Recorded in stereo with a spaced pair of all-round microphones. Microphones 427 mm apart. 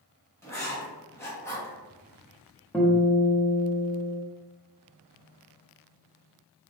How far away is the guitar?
About 0.6 m.